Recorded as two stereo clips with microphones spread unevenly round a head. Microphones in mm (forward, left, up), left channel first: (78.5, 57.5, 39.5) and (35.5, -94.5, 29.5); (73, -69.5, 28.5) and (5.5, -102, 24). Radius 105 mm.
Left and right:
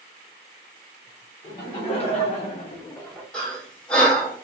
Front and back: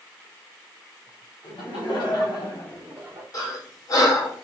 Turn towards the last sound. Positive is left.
turn(degrees=-10)